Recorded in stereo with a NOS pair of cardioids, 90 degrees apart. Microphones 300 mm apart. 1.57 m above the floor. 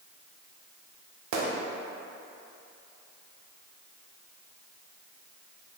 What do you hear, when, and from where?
1.3 s a gunshot: 65° right, 0.7 m